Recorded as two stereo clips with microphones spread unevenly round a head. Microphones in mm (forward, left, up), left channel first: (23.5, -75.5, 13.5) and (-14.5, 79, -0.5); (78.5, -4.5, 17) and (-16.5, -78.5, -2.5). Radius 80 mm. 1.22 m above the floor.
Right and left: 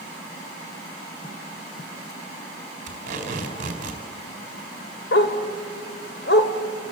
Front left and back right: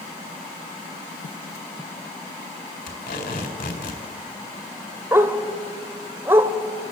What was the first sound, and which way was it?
Tape being pulled, 60° left.